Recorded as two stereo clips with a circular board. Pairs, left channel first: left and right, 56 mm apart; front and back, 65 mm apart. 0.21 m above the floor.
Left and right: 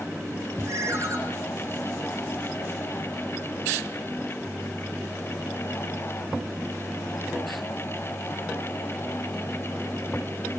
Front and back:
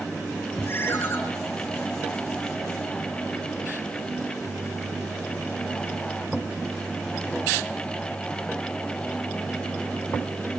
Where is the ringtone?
55° right, 4.5 m.